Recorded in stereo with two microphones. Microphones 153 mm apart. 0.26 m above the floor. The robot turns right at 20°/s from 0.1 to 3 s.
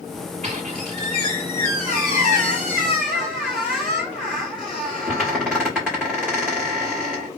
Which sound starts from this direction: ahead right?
A squeak, at 0.4 s.